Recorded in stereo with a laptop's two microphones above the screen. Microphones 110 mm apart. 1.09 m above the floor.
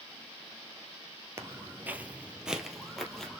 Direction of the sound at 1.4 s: 25° right (ahead or behind).